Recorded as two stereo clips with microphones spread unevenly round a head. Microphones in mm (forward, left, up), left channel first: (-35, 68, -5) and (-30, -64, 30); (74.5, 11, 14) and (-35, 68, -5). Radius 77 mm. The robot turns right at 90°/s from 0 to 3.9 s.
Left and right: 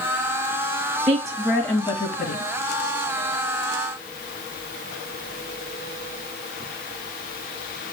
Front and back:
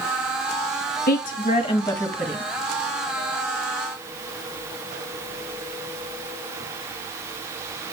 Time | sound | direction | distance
1.1 | a woman speaking | 30° right | 1.6 m